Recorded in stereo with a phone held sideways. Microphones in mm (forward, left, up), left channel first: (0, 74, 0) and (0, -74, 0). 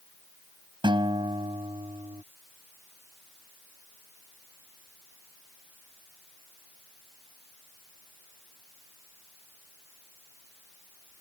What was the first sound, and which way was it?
A guitar, 30° right (ahead or behind).